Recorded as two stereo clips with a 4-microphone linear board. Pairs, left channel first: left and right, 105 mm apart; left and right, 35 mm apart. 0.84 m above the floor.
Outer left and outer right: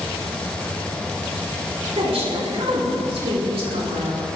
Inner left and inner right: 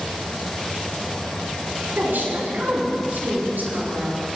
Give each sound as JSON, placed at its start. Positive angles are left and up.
{"t": 1.9, "sound": "a woman speaking", "side_deg": -80, "distance_m": 7.0}